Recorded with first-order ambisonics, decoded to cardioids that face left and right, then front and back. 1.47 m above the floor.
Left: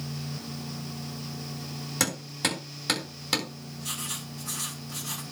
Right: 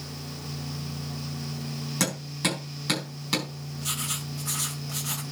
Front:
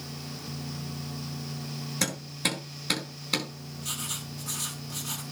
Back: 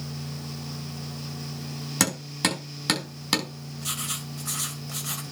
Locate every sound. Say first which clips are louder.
2.0 s hammering: even, back 4 dB; 175° left, 8.5 m
3.8 s writing: right 3 dB, back 3 dB; 155° right, 2.5 m